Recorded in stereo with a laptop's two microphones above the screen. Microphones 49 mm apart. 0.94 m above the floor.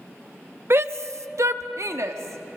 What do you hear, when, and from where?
0.7 s a shout: 55° right (ahead or behind), 1.0 m; by 2.6 s 65° right (ahead or behind), 1.8 m